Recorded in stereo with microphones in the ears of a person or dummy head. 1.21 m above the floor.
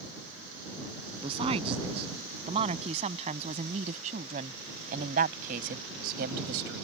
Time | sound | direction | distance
1.2 | a woman speaking | 25° right (ahead or behind) | ?